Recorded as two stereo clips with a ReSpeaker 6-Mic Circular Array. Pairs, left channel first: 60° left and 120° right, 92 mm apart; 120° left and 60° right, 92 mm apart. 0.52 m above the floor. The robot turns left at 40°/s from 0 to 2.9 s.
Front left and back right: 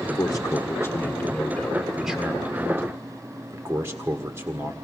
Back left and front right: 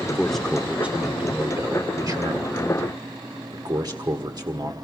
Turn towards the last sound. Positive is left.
turn(degrees=-70)